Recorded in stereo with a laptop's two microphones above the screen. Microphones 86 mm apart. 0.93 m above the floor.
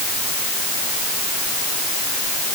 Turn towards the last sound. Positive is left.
No sound to turn to.